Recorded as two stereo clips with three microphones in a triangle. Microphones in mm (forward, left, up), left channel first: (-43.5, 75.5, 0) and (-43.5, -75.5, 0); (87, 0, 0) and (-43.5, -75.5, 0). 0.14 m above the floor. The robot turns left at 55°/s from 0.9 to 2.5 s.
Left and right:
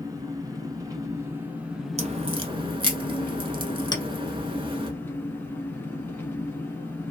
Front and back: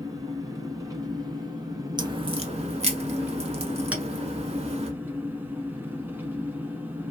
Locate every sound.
0.0 s an engine running: 120° right, 0.9 m; by 7.1 s 150° left, 0.9 m
2.0 s a crack: 100° right, 0.6 m; by 4.9 s 130° right, 0.6 m
3.9 s a clink: 135° left, 0.8 m